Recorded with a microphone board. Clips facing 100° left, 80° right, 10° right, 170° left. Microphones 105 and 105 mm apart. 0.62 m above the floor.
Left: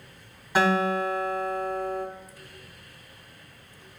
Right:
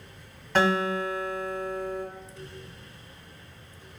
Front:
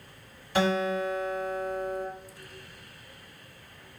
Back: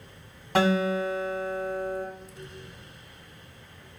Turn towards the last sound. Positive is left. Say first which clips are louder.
# left 1 dB, back 2 dB
turn(degrees=-175)